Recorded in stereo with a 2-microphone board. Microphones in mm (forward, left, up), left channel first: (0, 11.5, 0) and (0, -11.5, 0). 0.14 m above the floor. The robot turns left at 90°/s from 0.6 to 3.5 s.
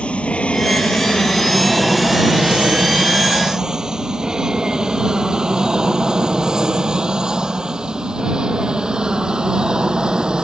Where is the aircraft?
60° left (ahead or behind); by 10.4 s 35° right (ahead or behind).